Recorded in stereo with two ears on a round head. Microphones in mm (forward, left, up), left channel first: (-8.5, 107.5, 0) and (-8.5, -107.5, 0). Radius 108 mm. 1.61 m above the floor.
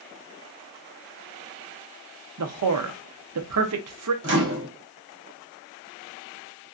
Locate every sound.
2.4 s a man speaking: 70° right (ahead or behind), 0.6 m
4.2 s a microwave: 55° right (ahead or behind), 0.8 m